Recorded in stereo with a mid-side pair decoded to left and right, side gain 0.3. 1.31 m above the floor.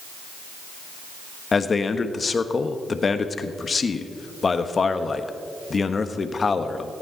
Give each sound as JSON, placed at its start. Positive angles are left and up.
{"t": 1.5, "sound": "a man speaking", "azimuth_deg": 50, "distance_m": 1.3}